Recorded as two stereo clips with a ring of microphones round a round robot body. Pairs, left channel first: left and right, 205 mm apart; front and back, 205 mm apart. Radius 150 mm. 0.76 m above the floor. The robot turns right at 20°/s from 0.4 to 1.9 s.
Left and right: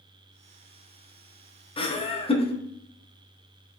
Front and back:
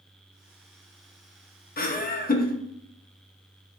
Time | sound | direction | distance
1.8 | laughter | 30° left | 0.6 m